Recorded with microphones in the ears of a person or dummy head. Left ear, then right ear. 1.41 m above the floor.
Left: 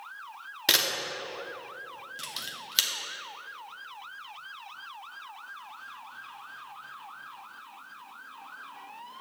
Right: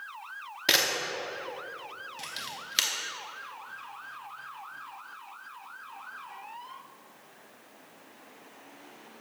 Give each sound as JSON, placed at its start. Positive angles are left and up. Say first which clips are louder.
{"t": 0.7, "sound": "a camera shutter", "louder": "even", "side_deg": 0, "distance_m": 0.7}